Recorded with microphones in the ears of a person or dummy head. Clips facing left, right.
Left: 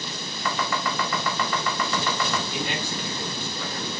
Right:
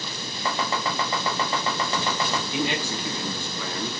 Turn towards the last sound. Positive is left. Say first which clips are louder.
# right 3 dB
turn(degrees=-60)  # may be behind; listen again after turning